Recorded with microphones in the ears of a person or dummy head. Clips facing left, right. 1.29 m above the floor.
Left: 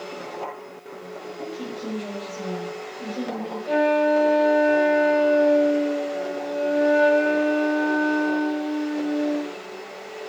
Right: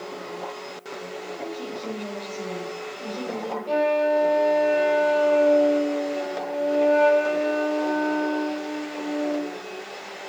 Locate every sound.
1.4 s a woman speaking: 15° left (ahead or behind), 6 m
3.7 s a flute: 15° left (ahead or behind), 0.8 m